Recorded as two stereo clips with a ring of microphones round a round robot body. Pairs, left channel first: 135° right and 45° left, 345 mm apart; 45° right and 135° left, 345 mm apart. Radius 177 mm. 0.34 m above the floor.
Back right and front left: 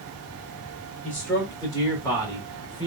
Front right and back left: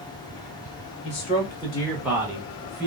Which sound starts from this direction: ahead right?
A man speaking, at 1.0 s.